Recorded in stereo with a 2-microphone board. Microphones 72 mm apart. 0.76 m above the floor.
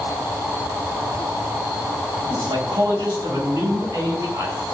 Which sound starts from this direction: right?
A man speaking, at 2.2 s.